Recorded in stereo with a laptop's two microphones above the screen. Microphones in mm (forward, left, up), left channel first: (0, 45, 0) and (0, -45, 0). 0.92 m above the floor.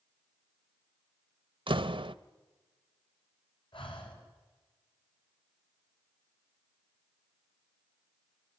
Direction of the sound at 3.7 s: 70° left (ahead or behind).